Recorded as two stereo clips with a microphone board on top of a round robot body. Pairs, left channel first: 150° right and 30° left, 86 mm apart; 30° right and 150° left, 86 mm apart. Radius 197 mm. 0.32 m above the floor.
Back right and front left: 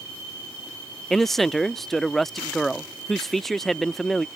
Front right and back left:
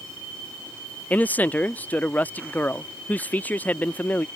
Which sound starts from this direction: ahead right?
A man speaking, at 1.1 s.